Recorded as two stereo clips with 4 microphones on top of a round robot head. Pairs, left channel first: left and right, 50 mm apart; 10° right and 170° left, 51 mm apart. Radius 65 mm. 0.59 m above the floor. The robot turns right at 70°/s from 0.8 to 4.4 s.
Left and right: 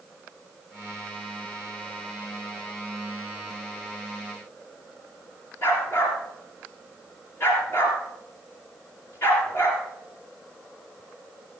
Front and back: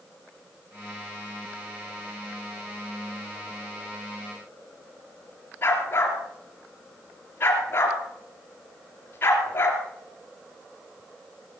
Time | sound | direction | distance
5.6 | a dog barking | 40° left | 3 m